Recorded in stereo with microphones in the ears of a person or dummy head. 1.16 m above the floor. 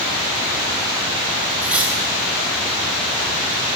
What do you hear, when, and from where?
1.6 s cutlery clinking: 10° right (ahead or behind), 3 m